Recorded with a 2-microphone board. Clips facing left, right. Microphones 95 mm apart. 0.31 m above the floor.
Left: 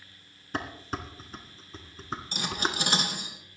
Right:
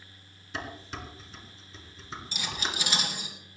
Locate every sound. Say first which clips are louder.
0.5 s dishes clattering: left 4 dB; 45° left (ahead or behind), 2 m
2.3 s cutlery clinking: left 4 dB; 50° left (ahead or behind), 3 m